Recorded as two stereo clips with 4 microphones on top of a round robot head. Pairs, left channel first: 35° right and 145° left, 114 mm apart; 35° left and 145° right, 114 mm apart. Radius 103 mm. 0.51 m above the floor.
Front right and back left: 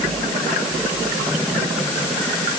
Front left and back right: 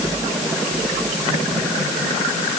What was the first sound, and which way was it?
Only background noise.